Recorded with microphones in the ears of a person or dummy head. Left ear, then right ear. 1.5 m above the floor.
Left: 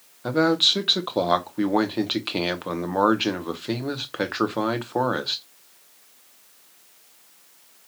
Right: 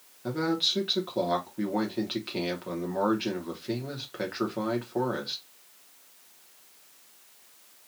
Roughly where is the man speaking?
Left.